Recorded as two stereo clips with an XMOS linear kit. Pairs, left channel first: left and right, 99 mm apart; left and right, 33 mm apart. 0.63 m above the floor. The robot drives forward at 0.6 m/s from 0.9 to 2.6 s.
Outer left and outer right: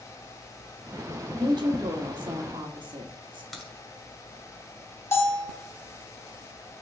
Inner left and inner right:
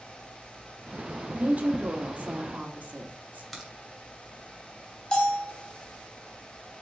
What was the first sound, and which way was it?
A woman speaking, 45° right (ahead or behind).